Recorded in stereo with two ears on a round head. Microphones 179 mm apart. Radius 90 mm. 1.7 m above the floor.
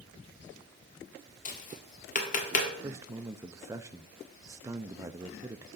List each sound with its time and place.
1.4 s tapping: 40° left (ahead or behind), 1.6 m
2.8 s a man speaking: 15° right (ahead or behind), 0.5 m